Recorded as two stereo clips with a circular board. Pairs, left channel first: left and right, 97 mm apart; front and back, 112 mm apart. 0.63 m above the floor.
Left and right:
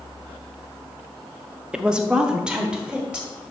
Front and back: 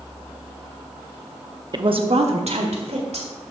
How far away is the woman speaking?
About 0.7 m.